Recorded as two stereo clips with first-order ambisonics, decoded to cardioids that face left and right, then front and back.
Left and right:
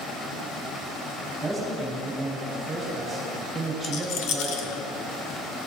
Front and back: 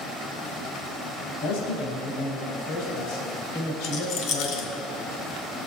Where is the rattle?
50° left, 1.2 m.